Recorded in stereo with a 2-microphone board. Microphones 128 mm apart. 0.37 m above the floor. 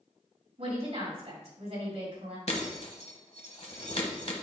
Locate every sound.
0.6 s a woman speaking: 55° right (ahead or behind), 3 m
2.5 s breaking glass: 55° left (ahead or behind), 1.2 m